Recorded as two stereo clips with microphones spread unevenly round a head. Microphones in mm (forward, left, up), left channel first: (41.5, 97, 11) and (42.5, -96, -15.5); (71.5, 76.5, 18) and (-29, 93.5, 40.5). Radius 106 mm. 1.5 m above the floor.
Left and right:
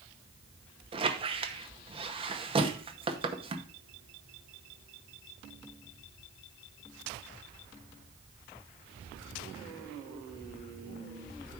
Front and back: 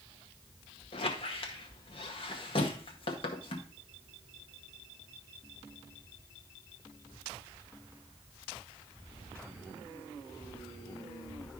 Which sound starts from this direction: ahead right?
A squeak, at 0.9 s.